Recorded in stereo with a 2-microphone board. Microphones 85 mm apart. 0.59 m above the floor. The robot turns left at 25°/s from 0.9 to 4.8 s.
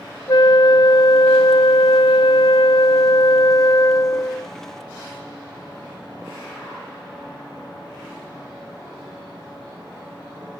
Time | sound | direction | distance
0.3 | a flute | 120° left | 0.6 m